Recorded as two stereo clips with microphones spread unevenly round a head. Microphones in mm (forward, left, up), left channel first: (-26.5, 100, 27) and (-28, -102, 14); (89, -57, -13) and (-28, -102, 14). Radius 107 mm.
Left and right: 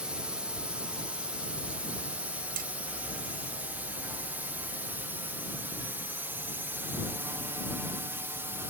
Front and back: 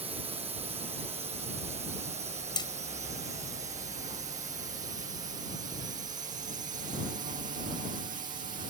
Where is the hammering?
35° right.